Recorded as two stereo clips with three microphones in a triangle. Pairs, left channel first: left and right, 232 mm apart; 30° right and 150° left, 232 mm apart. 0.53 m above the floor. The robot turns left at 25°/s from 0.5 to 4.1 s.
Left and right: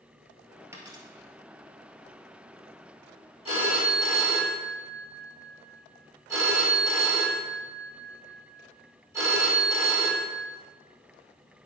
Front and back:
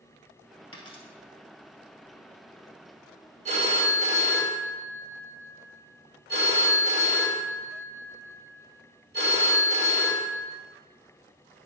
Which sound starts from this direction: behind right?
A phone ringing, at 3.5 s.